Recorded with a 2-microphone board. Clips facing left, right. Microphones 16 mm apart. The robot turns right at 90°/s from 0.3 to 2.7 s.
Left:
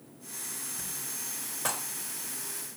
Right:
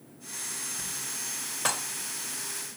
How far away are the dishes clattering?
About 0.7 m.